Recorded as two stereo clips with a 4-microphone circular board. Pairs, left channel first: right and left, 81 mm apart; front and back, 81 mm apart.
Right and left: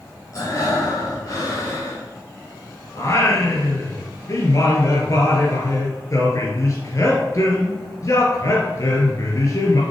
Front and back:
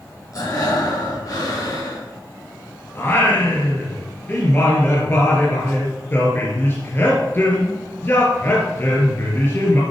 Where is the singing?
55° right, 2.5 m.